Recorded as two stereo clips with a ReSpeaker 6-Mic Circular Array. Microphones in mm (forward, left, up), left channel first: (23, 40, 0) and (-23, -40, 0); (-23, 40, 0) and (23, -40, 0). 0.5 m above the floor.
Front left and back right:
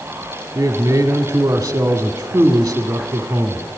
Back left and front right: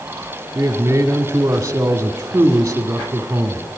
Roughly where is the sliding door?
No sliding door in this recording.